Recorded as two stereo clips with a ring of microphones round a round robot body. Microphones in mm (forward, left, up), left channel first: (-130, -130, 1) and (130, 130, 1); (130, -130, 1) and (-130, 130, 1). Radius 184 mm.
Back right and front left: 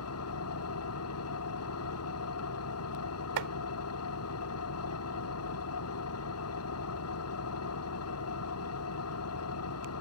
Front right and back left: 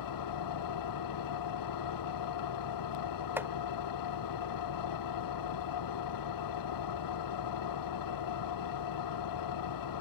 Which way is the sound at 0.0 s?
85° right.